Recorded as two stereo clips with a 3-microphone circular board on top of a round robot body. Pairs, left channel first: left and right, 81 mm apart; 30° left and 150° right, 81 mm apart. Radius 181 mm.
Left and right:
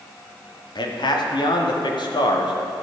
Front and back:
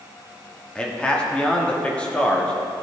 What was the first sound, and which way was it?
A man speaking, 105° left.